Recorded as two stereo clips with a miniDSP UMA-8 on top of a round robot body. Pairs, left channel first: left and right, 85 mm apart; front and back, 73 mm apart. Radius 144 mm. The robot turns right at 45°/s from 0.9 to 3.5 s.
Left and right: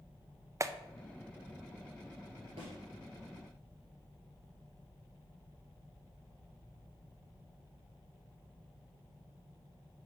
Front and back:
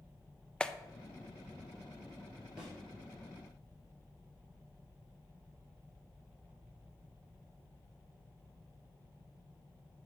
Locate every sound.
0.6 s a clap: 70° right, 0.6 m
2.6 s a thud: 105° right, 2 m; by 2.7 s 95° right, 2 m